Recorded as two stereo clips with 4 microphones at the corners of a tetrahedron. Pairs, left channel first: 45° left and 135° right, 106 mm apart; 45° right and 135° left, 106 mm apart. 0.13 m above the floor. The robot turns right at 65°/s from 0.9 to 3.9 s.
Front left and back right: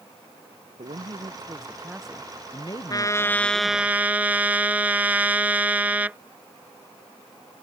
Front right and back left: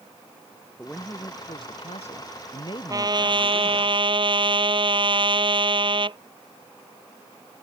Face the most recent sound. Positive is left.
turn(degrees=150)